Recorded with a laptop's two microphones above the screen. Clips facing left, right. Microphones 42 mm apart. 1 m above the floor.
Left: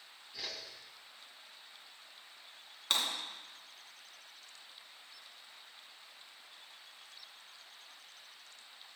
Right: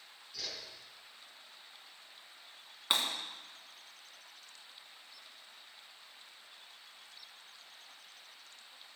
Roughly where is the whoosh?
Left.